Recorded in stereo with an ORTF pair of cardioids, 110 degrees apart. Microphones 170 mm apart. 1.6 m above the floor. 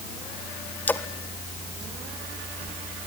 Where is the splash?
10° left, 1.4 m.